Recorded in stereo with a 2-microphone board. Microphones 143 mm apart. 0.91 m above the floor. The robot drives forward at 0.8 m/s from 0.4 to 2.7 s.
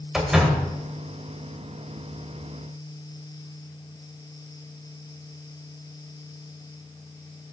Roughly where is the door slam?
Centre.